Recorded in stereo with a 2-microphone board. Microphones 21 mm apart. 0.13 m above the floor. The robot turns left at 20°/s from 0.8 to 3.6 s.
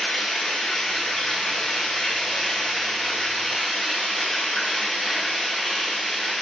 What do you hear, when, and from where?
0.0 s running water: 70° left, 6 m; by 6.4 s 10° left, 6 m